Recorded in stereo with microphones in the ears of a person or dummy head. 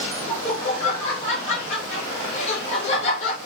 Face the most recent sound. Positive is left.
turn(degrees=40)  # may be behind; listen again after turning